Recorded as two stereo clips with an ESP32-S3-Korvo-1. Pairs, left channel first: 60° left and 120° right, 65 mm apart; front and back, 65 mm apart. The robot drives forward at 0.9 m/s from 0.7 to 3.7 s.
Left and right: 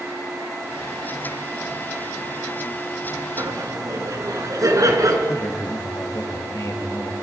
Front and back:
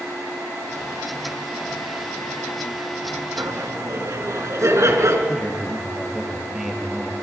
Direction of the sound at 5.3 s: 100° left.